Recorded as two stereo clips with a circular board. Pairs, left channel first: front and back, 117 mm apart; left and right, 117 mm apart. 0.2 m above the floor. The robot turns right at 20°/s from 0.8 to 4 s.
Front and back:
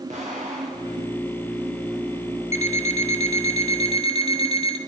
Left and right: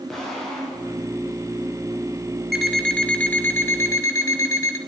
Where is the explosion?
Straight behind, 4.5 m; by 1.2 s 175° right, 4.5 m.